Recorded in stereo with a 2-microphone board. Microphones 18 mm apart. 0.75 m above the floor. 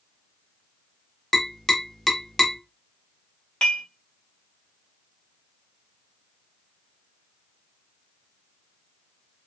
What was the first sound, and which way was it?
Tapping, 20° left (ahead or behind).